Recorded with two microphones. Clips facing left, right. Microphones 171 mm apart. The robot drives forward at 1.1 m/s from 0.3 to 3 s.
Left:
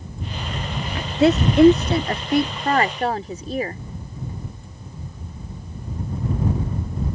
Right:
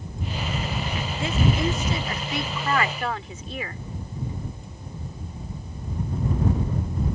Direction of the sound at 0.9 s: 80° left.